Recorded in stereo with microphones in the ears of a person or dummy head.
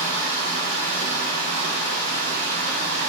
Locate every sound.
0.0 s running water: 75° right (ahead or behind), 1.6 m